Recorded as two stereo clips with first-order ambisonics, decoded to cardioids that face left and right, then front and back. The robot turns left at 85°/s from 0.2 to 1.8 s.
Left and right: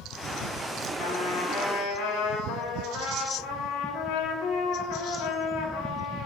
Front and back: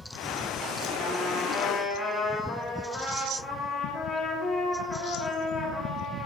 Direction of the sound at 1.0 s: 145° left.